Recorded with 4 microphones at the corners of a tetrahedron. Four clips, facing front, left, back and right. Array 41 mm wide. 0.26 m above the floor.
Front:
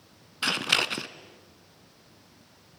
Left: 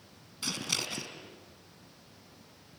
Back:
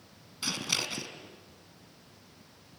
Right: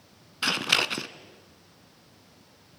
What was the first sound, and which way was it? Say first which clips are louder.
Scissors: right 10 dB, front 7 dB; 50° right.